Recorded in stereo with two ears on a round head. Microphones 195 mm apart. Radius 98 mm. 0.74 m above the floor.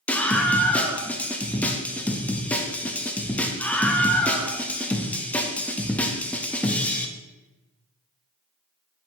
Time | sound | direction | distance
0.1 | a scream | 5° left (ahead or behind) | 0.7 m